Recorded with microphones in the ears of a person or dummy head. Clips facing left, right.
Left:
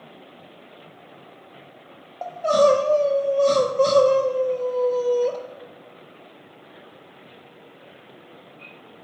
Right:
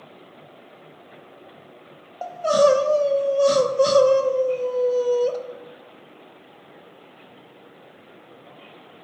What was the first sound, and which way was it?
Crying, 10° right (ahead or behind).